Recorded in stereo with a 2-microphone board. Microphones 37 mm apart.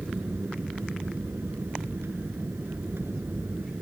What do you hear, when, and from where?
0.0 s an aircraft: 75° right (ahead or behind)